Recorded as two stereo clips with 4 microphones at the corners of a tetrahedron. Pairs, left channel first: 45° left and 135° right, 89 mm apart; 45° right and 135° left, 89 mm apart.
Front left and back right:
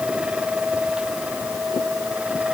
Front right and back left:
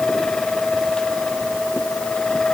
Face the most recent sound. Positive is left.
No sound to turn to.